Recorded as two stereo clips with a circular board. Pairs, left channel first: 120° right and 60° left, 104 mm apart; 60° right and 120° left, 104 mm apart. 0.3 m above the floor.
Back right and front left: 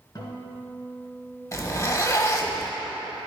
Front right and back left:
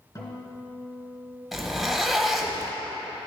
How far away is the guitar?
About 2.0 m.